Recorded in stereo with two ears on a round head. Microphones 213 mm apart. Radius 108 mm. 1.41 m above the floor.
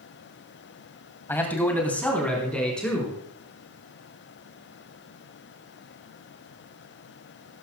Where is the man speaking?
10° left (ahead or behind), 2.5 m; by 3.2 s 5° left (ahead or behind), 5.5 m.